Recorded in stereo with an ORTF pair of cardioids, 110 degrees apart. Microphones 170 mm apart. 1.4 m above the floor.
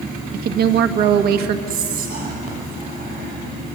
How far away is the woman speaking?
About 1.6 m.